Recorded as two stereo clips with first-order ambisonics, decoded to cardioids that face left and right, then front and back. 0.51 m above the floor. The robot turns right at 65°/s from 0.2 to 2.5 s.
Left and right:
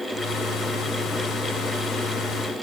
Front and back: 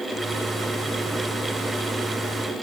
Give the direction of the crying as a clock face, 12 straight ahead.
No crying in this recording.